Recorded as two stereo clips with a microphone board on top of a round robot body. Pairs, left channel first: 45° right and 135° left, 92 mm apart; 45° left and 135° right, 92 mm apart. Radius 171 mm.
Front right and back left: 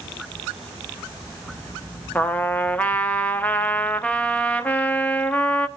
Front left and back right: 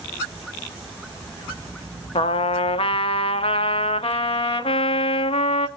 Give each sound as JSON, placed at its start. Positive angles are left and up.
{"t": 2.1, "sound": "a trumpet", "azimuth_deg": 30, "distance_m": 0.9}